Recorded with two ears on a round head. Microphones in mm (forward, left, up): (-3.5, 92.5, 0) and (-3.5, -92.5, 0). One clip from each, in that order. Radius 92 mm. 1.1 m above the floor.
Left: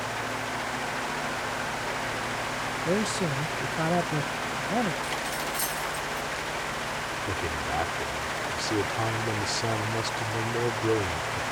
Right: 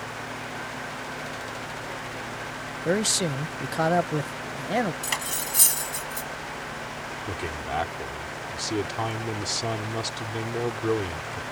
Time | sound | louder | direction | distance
2.9 | a man speaking | right 5 dB | 50° right (ahead or behind) | ?
5.0 | cutlery clinking | even | 55° right (ahead or behind) | ?
7.3 | a man speaking | even | 15° right (ahead or behind) | ?